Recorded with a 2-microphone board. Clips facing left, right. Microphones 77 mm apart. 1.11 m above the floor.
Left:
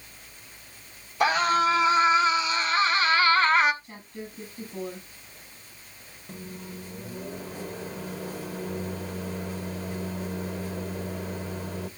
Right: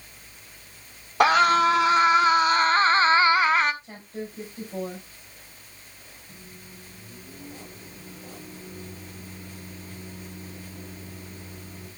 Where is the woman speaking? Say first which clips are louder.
Right 4 dB; 75° right (ahead or behind), 6.5 m.